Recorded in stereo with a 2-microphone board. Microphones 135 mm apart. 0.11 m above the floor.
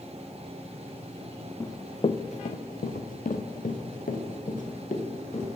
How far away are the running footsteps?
About 0.6 m.